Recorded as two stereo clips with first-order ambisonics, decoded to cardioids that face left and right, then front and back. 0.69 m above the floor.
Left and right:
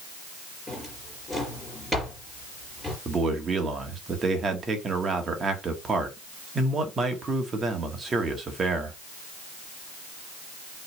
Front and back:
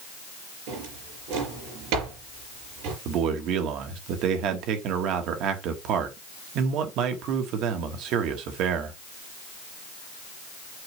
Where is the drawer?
175° left, 5.5 m.